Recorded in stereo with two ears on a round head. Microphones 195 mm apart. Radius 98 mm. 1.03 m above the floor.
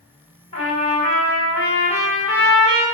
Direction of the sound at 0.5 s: 30° left (ahead or behind).